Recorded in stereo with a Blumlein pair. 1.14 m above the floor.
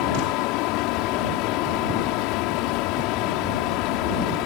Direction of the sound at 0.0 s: 40° left.